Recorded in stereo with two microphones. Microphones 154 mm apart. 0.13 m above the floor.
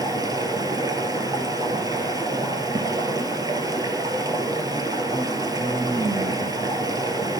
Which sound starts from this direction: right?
Running water, at 0.0 s.